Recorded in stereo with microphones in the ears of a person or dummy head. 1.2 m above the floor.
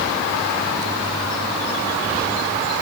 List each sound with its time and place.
Only background noise.